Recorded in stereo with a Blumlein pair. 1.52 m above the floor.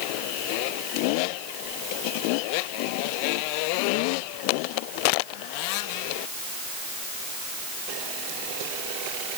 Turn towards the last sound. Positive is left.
No sound to turn to.